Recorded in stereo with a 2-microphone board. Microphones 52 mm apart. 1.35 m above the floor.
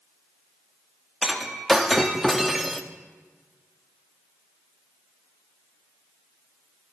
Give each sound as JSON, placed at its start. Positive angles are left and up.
{"t": 1.2, "sound": "breaking glass", "side_deg": 0, "distance_m": 0.9}